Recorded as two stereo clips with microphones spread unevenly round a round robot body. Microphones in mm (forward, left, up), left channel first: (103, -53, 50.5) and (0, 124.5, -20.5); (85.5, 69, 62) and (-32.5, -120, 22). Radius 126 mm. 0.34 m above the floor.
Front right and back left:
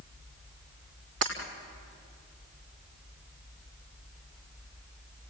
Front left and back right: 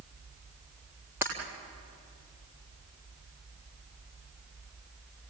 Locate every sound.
1.2 s breaking glass: 155° left, 3 m